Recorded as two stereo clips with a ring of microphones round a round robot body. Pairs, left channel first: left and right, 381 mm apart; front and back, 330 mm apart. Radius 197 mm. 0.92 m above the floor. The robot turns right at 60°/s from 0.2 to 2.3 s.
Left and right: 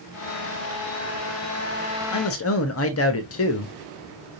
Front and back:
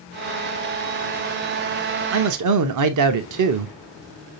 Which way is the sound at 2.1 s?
135° left.